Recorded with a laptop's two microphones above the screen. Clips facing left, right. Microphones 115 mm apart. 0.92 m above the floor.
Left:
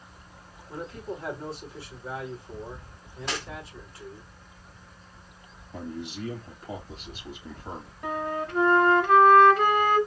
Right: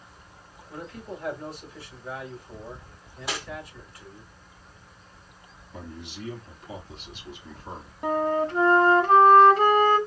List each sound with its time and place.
0.7 s a man speaking: 25° left (ahead or behind), 3 m
3.3 s cutlery clinking: 10° right (ahead or behind), 1.4 m
5.7 s a man speaking: 40° left (ahead or behind), 3 m
8.0 s a flute: 30° right (ahead or behind), 1.1 m